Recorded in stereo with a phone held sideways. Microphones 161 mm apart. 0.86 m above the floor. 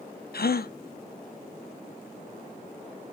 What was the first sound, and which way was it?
A gasp, 75° left (ahead or behind).